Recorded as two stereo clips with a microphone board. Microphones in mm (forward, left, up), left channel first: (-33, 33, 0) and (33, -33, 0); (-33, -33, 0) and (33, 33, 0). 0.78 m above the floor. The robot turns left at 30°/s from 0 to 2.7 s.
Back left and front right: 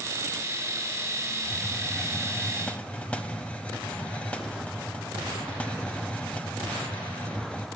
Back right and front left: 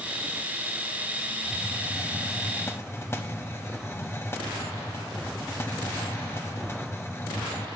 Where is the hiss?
125° right, 0.6 m; by 7.7 s 160° right, 0.6 m.